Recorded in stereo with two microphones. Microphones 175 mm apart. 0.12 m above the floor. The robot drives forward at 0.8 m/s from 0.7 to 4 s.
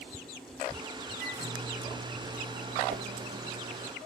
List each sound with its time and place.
1.2 s a microwave: 55° right (ahead or behind), 4 m; by 3.9 s 70° right (ahead or behind), 3.5 m
2.9 s a whoosh: 55° right (ahead or behind), 0.6 m; by 3.1 s 60° right (ahead or behind), 0.6 m